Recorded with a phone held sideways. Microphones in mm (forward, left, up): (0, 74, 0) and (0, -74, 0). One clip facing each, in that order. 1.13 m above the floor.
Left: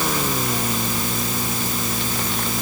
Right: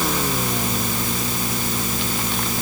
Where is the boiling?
No boiling in this recording.